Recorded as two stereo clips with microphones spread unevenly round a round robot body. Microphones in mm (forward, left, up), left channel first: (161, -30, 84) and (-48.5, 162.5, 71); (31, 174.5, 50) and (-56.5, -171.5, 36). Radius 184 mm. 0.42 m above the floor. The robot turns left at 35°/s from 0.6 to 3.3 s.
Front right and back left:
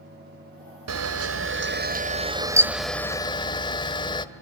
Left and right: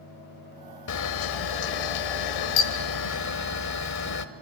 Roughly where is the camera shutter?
Behind left.